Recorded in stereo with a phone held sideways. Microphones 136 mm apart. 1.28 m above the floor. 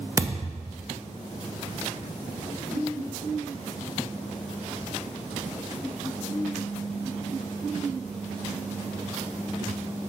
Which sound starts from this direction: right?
A thud, at 0.2 s.